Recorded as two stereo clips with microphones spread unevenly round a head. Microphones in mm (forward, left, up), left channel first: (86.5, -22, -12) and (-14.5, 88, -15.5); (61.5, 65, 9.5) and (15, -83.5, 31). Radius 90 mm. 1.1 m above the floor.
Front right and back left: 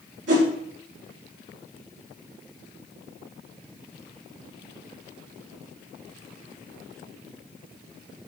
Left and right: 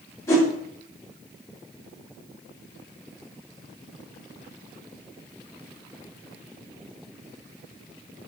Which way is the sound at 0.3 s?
150° left.